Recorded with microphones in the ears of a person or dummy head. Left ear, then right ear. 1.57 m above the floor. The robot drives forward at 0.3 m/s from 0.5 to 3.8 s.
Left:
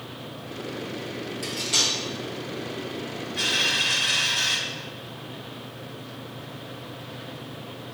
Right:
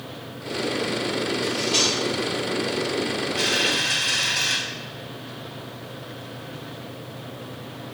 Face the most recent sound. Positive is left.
turn(degrees=15)  # may be behind; listen again after turning